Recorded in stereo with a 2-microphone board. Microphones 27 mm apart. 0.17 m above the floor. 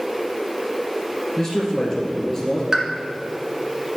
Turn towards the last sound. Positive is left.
turn(degrees=-25)  # may be behind; listen again after turning